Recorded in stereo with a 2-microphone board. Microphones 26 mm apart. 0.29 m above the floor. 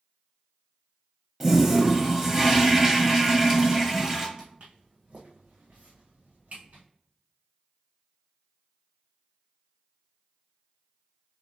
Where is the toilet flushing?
15° right (ahead or behind), 0.9 m.